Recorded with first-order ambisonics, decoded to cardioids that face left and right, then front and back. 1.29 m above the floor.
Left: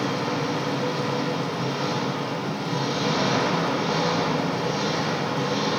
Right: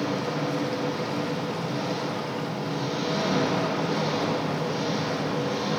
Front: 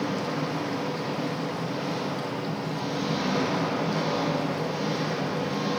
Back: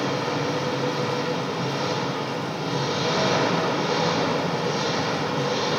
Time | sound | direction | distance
0.0 | an engine running | 155° left | 3.5 m